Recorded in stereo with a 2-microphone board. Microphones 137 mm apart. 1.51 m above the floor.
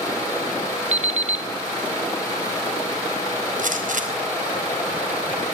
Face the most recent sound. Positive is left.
turn(degrees=-70)  # may be behind; listen again after turning